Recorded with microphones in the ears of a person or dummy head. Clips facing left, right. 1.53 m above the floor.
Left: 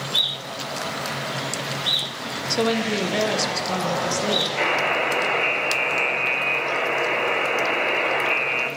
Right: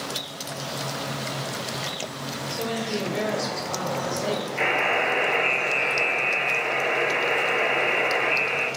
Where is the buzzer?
70° left (ahead or behind), 5.5 m.